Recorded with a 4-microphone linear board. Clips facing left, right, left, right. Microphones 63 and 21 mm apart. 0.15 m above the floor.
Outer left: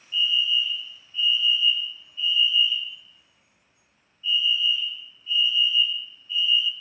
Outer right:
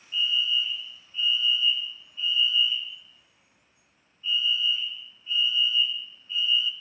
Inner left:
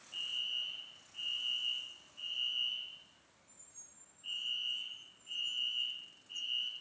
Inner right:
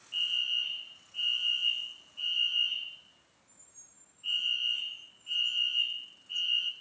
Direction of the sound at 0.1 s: 30° right (ahead or behind).